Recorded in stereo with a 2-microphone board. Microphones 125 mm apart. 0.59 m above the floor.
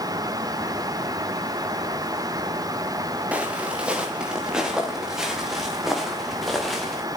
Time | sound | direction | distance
3.3 | footsteps | 10° right (ahead or behind) | 3.5 m